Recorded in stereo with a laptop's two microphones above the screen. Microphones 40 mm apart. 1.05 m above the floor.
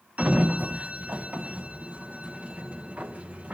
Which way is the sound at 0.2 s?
35° right (ahead or behind).